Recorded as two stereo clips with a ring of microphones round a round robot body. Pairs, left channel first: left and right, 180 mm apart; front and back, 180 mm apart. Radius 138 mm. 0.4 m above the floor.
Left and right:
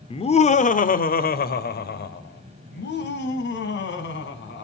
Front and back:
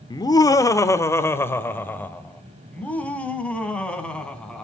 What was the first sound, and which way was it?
Laughter, 55° left.